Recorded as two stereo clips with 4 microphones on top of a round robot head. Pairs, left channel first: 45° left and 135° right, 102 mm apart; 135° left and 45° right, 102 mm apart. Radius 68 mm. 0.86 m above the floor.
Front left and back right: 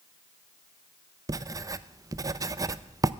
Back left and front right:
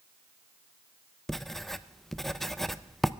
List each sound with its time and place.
1.3 s writing: 140° right, 0.6 m